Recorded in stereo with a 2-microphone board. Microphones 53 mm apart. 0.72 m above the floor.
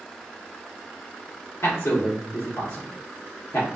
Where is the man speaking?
65° left (ahead or behind), 1.2 m.